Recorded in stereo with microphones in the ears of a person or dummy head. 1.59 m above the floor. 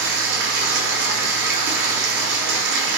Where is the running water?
65° right (ahead or behind), 0.8 m.